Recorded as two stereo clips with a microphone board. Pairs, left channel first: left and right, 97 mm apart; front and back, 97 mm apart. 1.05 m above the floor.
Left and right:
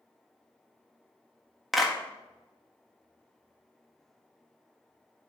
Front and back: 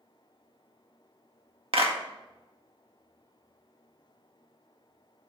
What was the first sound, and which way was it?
A clap, straight behind.